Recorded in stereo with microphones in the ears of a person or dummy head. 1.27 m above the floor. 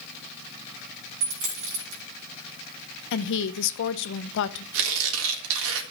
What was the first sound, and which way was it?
A dropped coin, 65° right (ahead or behind).